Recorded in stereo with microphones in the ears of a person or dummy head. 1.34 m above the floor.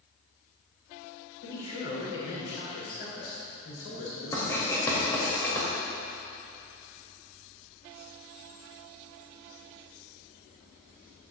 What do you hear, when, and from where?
1.4 s a man speaking: 60° left (ahead or behind), 4 m; by 5.3 s 75° left (ahead or behind), 5.5 m
4.3 s writing: 20° left (ahead or behind), 3.5 m